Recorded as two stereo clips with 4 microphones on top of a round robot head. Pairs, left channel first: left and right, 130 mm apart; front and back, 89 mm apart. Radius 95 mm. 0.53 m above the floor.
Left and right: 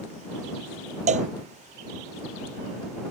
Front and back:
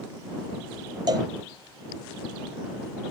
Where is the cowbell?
120° right.